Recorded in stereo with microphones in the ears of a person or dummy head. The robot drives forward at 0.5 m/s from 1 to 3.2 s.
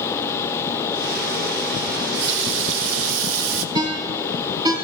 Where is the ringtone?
20° right (ahead or behind), 4 m.